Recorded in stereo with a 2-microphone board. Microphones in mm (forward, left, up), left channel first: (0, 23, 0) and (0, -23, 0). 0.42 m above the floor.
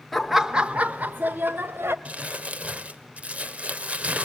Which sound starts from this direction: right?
Crumpling, at 2.0 s.